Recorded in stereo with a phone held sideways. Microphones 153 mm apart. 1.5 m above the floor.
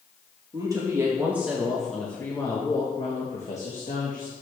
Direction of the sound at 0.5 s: 25° right (ahead or behind).